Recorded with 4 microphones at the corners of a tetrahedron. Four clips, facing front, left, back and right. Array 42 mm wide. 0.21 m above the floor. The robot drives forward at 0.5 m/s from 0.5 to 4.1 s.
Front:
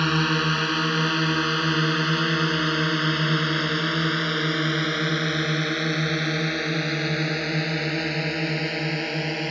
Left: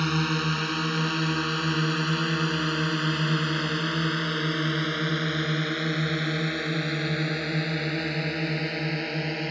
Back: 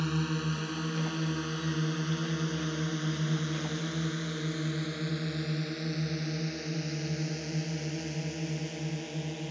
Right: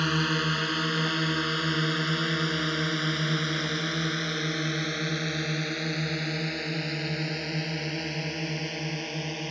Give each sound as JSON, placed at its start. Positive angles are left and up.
{"t": 0.0, "sound": "a drone", "azimuth_deg": -5}